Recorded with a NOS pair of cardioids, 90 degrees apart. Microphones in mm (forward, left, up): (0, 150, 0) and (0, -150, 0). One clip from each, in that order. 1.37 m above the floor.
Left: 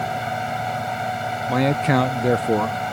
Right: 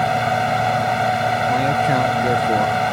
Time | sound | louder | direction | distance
0.0 | a fan | right 7 dB | 50° right | ?
1.5 | a man speaking | right 3 dB | 20° left | ?